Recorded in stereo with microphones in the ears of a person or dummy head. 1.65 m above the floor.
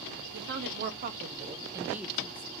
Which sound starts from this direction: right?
A woman speaking, at 0.3 s.